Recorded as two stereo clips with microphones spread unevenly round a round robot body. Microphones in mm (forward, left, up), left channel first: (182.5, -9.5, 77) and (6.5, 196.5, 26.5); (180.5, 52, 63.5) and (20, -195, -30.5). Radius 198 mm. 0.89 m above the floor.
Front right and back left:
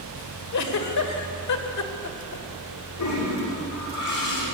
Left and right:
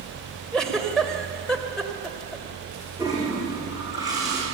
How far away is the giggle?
About 2.5 m.